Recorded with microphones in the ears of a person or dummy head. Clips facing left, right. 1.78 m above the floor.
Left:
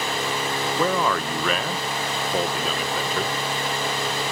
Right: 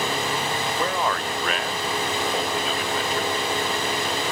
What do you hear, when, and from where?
0.8 s a man speaking: 70° left (ahead or behind), 1.0 m